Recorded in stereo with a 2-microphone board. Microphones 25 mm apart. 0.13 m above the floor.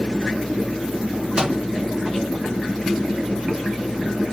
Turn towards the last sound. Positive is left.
turn(degrees=-25)  # may be behind; listen again after turning